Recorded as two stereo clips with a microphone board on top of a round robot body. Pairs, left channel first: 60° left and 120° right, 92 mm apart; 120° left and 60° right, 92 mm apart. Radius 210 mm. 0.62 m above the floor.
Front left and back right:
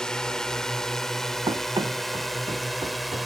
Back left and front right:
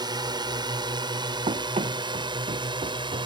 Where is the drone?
20° right; by 3.3 s 30° right.